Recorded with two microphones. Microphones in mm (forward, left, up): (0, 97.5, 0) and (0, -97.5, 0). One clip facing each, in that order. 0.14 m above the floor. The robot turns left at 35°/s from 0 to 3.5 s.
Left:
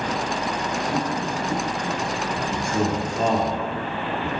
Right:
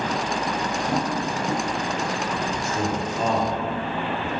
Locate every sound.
0.9 s tapping: 40° right (ahead or behind), 3 m; by 1.6 s 55° right (ahead or behind), 3 m
2.4 s a man speaking: 55° left (ahead or behind), 3 m; by 4.3 s 35° left (ahead or behind), 3 m